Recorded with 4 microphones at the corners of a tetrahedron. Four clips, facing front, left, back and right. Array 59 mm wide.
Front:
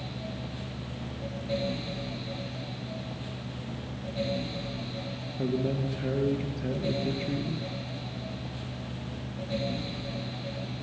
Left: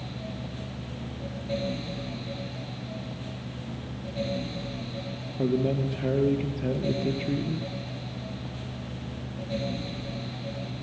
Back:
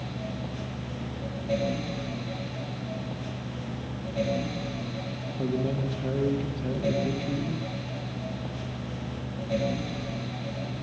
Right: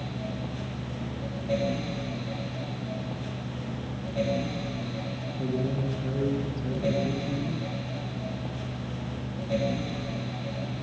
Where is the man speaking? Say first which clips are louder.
Left 4 dB, even; 85° left, 2.5 m.